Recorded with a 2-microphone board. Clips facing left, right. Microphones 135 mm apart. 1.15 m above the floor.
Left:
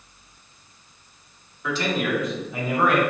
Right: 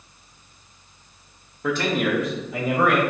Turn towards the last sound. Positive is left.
turn(degrees=-80)